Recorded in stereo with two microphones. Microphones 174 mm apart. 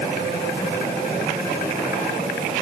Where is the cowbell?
I don't hear a cowbell.